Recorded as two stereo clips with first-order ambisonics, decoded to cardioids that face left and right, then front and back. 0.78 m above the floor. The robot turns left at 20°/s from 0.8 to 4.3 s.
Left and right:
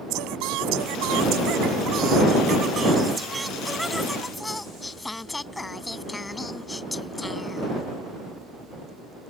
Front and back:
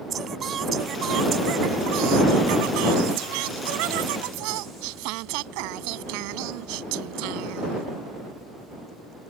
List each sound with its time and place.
0.1 s singing: 120° right; by 7.9 s 170° left